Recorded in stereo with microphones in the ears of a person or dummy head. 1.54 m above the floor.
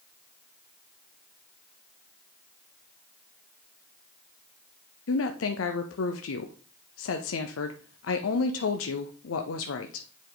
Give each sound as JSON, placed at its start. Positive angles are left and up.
{"t": 5.1, "sound": "a woman speaking", "side_deg": 75, "distance_m": 0.6}